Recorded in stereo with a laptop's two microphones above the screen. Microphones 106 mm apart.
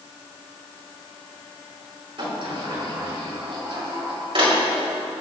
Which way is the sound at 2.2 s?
60° right (ahead or behind).